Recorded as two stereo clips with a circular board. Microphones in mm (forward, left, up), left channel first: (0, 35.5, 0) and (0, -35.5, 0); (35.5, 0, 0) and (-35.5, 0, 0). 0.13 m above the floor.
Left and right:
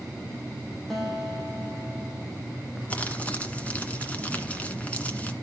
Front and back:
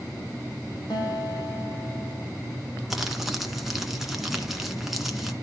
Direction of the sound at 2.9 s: 100° left.